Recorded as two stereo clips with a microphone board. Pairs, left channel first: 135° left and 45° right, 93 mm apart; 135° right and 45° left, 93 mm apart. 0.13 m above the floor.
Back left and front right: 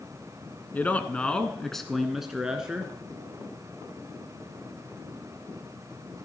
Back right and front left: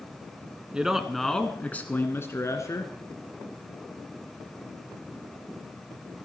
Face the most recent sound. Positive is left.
turn(degrees=-120)